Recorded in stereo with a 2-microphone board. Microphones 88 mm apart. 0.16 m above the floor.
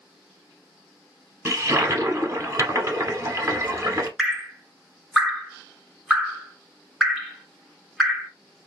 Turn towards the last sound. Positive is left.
turn(degrees=-5)  # may be behind; listen again after turning